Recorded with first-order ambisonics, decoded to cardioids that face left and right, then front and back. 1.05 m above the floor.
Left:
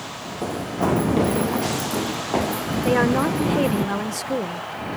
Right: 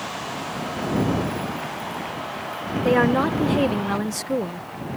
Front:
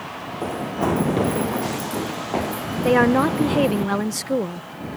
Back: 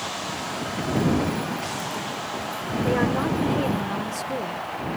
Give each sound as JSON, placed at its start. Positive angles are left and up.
{"t": 0.4, "sound": "running footsteps", "azimuth_deg": 40}
{"t": 2.9, "sound": "a woman speaking", "azimuth_deg": -5}